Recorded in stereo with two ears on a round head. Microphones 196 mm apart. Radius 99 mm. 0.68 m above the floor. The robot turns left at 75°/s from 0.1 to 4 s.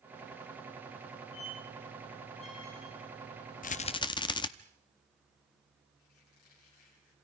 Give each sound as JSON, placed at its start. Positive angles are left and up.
{"t": 1.3, "sound": "a squeak", "side_deg": 65, "distance_m": 6.0}
{"t": 3.6, "sound": "a rattle", "side_deg": 40, "distance_m": 0.7}
{"t": 6.0, "sound": "a squeak", "side_deg": 70, "distance_m": 9.0}